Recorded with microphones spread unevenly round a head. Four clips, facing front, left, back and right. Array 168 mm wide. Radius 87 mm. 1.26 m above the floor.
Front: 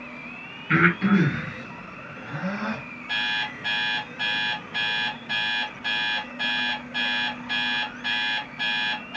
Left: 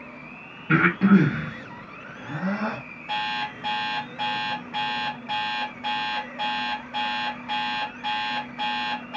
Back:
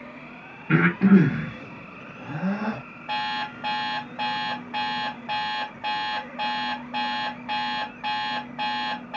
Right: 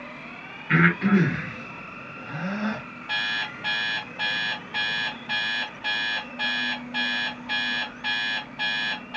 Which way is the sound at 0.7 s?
140° left.